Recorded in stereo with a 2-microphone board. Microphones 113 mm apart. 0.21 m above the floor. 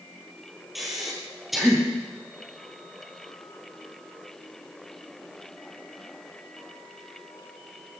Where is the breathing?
Centre (ahead or behind), 3.5 m.